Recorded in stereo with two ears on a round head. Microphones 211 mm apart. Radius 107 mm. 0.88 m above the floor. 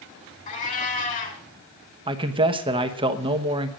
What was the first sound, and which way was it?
A cat meowing, 35° left (ahead or behind).